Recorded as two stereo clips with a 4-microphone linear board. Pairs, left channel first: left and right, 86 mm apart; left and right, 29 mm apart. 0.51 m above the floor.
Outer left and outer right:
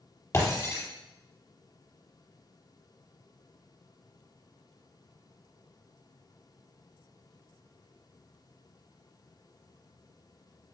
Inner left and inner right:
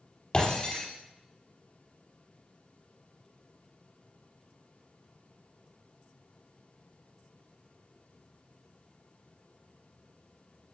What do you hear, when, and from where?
0.3 s breaking glass: 35° left (ahead or behind), 4.5 m